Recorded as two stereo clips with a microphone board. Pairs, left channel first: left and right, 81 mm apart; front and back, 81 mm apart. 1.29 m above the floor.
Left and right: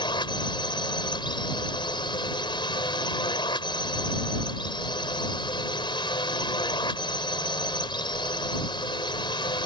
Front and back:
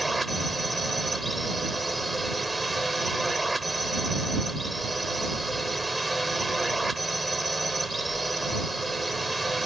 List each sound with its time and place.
0.0 s a drone: 90° left